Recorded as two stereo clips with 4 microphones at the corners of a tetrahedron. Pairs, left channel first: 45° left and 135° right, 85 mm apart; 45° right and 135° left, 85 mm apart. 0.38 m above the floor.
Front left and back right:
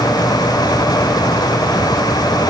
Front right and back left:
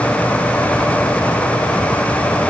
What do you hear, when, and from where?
Only background noise.